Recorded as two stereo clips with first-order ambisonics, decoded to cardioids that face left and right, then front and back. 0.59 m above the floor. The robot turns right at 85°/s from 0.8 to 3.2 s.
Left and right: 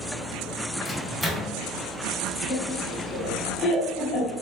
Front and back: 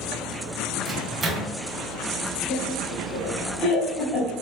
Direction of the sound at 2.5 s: 15° left.